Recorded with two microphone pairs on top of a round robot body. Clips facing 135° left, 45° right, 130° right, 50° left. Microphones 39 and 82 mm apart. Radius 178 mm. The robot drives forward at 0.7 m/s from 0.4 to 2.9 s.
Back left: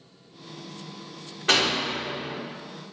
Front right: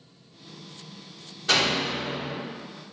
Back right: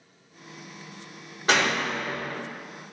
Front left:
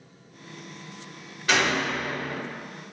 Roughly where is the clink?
No clink in this recording.